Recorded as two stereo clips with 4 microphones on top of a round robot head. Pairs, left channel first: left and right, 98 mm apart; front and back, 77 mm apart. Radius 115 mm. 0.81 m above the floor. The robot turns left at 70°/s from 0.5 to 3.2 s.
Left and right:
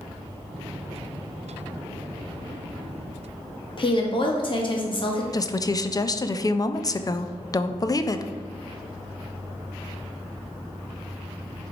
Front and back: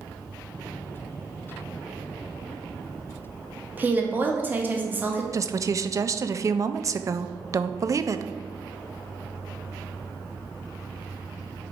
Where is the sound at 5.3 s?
135° left, 0.6 m.